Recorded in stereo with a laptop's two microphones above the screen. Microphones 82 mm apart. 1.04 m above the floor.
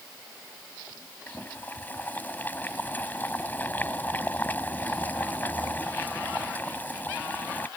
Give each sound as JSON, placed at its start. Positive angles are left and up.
{"t": 1.3, "sound": "boiling", "side_deg": 20}